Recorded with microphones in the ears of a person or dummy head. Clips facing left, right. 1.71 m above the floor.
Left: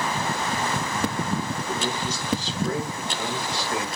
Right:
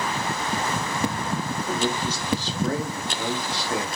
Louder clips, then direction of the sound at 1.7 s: Right 2 dB; 30° right (ahead or behind).